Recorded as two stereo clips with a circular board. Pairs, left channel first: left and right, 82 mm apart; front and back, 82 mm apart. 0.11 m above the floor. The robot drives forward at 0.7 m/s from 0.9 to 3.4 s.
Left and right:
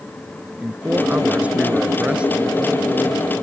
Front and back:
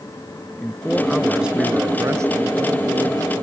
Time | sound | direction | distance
0.6 | a man speaking | 60° right | ?